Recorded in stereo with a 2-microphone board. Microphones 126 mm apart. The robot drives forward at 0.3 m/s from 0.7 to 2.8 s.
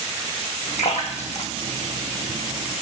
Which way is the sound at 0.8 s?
60° left (ahead or behind).